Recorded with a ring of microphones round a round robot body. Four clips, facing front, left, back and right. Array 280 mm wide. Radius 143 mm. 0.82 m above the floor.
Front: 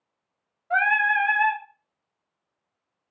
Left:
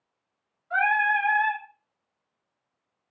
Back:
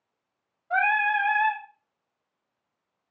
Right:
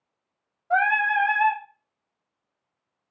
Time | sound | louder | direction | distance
0.7 | singing | right 2 dB, front 1 dB | 70° right | 0.9 m